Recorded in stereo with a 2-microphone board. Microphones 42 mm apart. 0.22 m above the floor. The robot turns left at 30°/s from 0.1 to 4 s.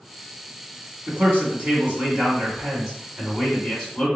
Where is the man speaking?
120° right, 1.6 m; by 4.1 s 150° left, 1.6 m.